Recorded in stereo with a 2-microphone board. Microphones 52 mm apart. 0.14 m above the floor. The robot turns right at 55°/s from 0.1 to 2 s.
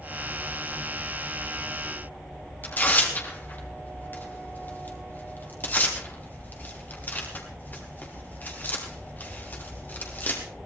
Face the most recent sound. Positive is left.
turn(degrees=35)  # may be behind; listen again after turning